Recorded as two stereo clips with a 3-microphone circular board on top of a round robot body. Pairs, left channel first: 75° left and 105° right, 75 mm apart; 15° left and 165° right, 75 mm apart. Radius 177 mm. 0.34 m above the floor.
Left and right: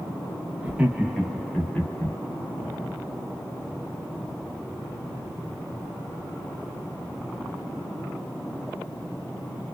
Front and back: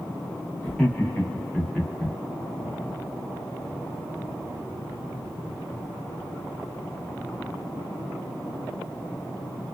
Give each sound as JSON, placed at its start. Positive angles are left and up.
{"t": 0.6, "sound": "laughter", "azimuth_deg": -45, "distance_m": 1.4}